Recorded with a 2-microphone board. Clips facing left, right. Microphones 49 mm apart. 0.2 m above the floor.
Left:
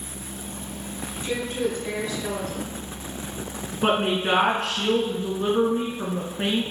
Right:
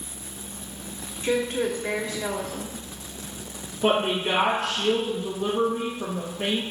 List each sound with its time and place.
1.2 s a woman speaking: 35° right (ahead or behind), 1.1 m
3.8 s a woman speaking: 55° left (ahead or behind), 2 m